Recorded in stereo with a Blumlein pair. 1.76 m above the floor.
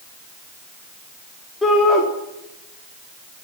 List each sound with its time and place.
1.6 s a shout: 10° left, 3.5 m